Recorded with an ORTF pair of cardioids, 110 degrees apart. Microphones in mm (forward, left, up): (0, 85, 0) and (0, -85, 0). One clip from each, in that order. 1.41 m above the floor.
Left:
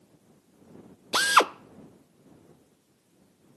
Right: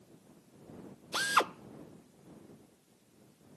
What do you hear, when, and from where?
1.1 s a drill: 45° left